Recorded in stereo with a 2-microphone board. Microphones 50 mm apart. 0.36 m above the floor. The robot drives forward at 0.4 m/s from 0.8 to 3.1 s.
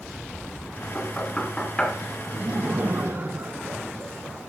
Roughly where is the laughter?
Right.